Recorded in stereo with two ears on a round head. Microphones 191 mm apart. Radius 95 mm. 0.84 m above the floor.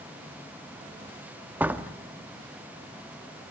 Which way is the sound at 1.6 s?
10° right (ahead or behind).